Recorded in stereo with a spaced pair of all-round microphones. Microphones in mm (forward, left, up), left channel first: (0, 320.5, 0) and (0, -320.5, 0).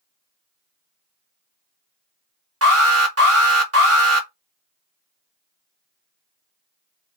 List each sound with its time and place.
2.6 s an alarm: 20° right (ahead or behind), 0.9 m